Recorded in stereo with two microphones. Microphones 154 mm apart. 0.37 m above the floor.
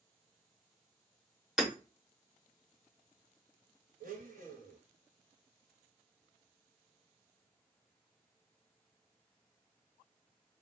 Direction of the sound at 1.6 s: 5° right (ahead or behind).